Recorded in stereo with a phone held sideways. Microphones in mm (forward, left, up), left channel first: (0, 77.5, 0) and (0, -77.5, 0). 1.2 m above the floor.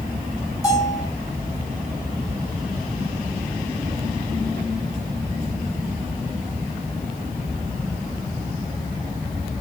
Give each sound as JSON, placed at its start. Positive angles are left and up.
{"t": 0.6, "sound": "a bell", "side_deg": 20, "distance_m": 8.0}